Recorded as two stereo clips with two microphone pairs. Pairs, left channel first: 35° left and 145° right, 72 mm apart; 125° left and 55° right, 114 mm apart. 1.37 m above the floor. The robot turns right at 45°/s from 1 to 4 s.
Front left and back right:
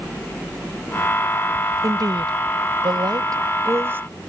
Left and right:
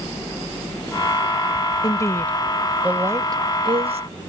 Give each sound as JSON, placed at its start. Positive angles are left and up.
{"t": 1.8, "sound": "a woman speaking", "azimuth_deg": 180}